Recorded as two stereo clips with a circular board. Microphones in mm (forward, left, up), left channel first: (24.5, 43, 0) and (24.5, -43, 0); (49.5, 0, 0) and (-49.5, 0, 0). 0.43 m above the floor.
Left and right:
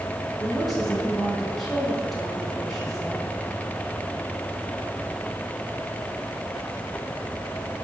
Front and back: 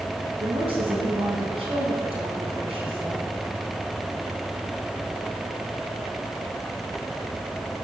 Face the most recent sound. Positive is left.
turn(degrees=175)